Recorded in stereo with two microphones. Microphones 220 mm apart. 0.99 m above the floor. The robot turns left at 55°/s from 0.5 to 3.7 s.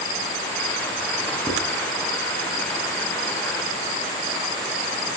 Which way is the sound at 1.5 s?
20° right (ahead or behind).